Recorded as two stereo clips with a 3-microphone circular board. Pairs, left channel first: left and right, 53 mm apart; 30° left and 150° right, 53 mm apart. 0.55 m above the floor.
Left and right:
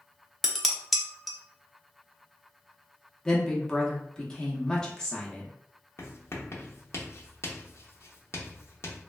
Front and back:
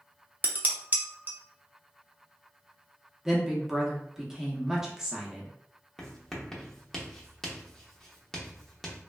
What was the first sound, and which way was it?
Dishes clattering, straight behind.